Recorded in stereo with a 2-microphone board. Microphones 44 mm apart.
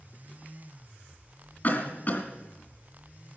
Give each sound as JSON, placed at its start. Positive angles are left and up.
{"t": 1.6, "sound": "a cough", "side_deg": 40, "distance_m": 2.0}